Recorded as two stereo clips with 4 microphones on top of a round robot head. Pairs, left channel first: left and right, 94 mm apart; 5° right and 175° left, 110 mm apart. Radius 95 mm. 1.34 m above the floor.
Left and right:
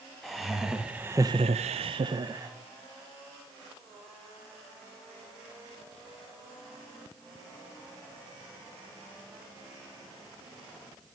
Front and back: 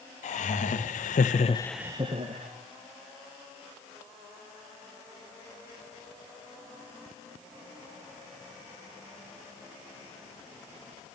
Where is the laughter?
Straight ahead, 2.0 m; by 2.5 s 145° right, 1.3 m.